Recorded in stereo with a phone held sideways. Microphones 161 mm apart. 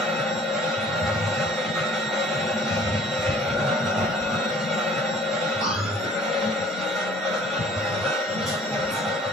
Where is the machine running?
Centre (ahead or behind), 3.5 m.